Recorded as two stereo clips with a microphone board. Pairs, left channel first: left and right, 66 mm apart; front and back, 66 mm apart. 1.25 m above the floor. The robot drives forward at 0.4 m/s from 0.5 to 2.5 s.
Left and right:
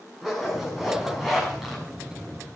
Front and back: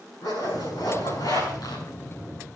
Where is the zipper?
Straight ahead, 7.5 m.